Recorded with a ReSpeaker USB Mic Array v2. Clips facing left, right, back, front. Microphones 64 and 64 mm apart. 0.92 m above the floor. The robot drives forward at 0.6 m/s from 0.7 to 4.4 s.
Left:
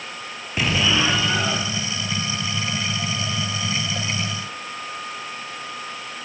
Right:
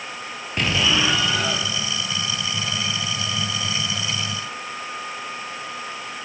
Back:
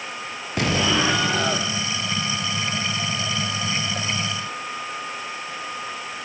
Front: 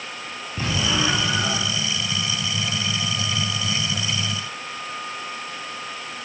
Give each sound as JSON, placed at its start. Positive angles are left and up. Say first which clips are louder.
{"t": 0.6, "sound": "an explosion", "louder": "left 1 dB, back 3 dB", "azimuth_deg": 180, "distance_m": 3.0}